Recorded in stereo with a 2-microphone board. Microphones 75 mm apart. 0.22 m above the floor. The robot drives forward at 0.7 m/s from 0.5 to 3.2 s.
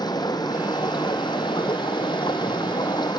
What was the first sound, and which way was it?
Running water, 65° left (ahead or behind).